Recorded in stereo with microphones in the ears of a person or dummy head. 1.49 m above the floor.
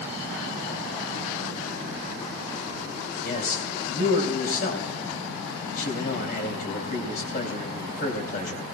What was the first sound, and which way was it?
A man speaking, 55° left (ahead or behind).